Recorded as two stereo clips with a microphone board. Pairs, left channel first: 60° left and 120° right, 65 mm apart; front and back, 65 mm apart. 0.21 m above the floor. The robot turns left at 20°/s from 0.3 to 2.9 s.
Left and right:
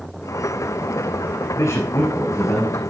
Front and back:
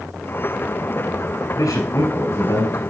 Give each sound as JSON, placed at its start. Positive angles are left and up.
{"t": 1.6, "sound": "a man speaking", "azimuth_deg": 20, "distance_m": 3.0}